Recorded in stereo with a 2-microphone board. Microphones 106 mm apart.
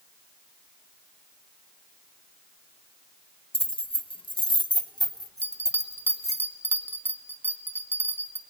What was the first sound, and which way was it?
Keys jangling, 65° left (ahead or behind).